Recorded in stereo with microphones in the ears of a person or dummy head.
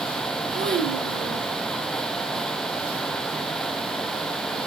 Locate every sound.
0.5 s a child speaking: 45° right (ahead or behind), 3.5 m